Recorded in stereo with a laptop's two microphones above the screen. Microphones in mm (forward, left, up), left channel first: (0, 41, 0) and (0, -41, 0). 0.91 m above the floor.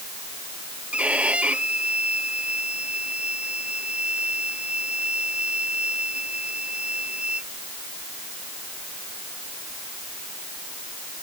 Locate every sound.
0.9 s a violin: 15° right (ahead or behind)